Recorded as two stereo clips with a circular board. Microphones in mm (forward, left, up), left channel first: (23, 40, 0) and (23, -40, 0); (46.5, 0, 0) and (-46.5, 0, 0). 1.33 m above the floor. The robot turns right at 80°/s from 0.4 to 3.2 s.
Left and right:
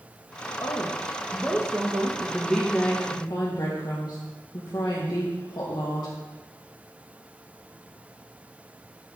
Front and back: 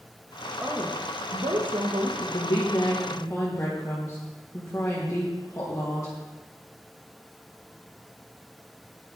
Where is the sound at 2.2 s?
20° right, 1.6 m; by 6.1 s 60° left, 1.6 m.